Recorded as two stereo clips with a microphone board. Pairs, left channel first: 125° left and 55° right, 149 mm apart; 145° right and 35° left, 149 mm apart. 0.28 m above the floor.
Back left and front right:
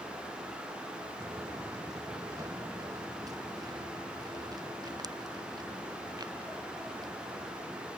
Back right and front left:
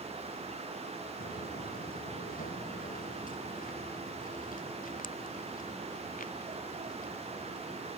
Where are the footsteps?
125° right; by 7.9 s 120° right.